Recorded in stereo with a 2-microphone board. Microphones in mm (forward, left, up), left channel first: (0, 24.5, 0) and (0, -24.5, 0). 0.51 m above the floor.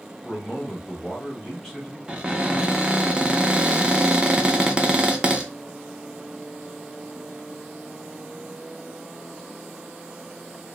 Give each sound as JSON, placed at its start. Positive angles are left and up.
{"t": 0.2, "sound": "a man speaking", "side_deg": 5, "distance_m": 1.3}
{"t": 2.1, "sound": "a cupboard door", "side_deg": -20, "distance_m": 0.5}